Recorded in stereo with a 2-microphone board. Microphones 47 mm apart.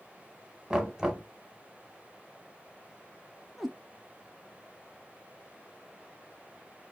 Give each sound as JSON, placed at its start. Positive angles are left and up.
{"t": 0.7, "sound": "knocking", "side_deg": -10, "distance_m": 1.2}
{"t": 3.6, "sound": "a cat meowing", "side_deg": 0, "distance_m": 0.5}